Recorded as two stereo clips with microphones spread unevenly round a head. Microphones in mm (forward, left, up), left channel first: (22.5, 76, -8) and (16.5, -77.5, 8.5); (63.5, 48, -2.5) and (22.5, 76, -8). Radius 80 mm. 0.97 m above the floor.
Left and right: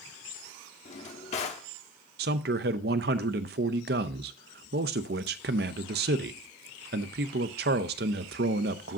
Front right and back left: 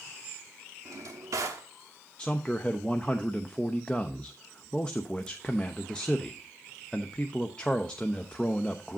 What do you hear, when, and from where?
0.8 s a drawer: 140° left, 1.1 m
2.2 s a man speaking: 120° right, 0.6 m